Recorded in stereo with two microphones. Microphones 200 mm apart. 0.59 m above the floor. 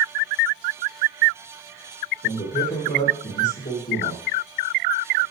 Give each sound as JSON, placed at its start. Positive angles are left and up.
{"t": 2.2, "sound": "a man speaking", "side_deg": 55, "distance_m": 2.0}